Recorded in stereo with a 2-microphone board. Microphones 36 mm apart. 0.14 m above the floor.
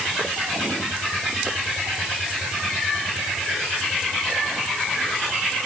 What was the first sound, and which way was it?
Only background noise.